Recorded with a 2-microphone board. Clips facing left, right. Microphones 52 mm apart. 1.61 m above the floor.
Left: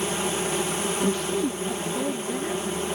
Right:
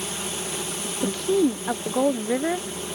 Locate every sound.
0.0 s an insect: 35° left (ahead or behind)
1.0 s a woman speaking: 80° right